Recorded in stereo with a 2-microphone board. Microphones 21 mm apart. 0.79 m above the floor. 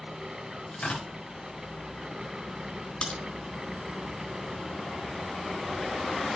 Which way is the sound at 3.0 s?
70° left (ahead or behind).